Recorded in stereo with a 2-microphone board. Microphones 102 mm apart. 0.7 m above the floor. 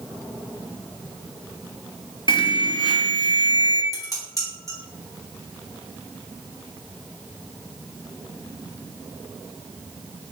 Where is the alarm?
50° left (ahead or behind), 0.6 m.